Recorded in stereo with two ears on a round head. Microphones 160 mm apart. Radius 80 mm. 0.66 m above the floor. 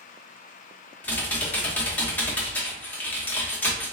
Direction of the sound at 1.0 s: 10° left (ahead or behind).